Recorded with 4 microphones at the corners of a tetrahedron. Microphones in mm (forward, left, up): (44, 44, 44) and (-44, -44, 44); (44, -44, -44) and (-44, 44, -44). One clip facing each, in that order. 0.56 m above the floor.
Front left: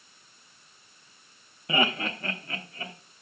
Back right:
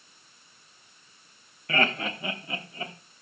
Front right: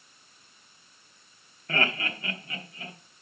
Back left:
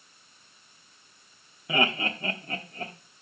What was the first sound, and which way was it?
Laughter, 80° left.